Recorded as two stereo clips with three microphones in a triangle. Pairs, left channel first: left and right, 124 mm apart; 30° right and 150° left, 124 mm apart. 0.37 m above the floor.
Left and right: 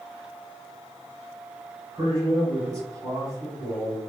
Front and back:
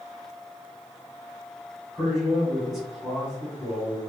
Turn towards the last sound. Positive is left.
turn(degrees=-120)